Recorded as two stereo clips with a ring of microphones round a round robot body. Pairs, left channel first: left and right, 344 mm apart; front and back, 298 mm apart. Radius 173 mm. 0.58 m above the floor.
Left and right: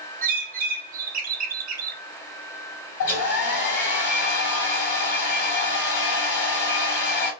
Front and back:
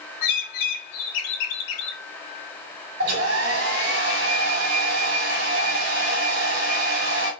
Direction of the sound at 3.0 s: 130° left.